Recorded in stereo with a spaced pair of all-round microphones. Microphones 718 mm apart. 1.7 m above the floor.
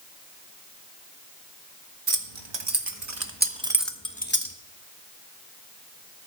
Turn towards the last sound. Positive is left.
turn(degrees=20)  # may be behind; listen again after turning